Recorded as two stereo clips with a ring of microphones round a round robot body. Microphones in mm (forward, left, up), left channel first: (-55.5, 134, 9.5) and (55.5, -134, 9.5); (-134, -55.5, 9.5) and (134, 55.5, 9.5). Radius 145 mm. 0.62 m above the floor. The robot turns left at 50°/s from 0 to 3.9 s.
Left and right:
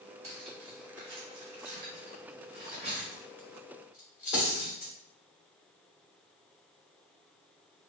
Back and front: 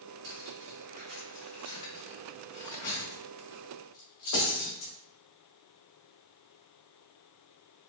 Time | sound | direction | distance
0.2 | cutlery clinking | 5° right | 1.3 m